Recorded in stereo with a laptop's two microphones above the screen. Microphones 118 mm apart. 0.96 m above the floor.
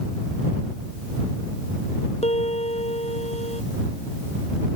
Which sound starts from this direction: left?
A piano, at 2.2 s.